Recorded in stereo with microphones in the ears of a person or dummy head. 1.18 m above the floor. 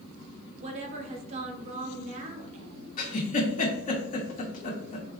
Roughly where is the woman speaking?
Right.